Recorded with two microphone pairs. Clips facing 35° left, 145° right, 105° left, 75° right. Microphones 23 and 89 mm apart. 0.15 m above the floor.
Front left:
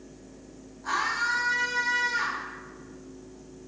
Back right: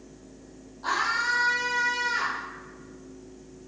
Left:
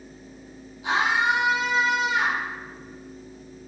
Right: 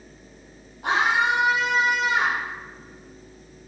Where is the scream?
115° right, 4.5 m.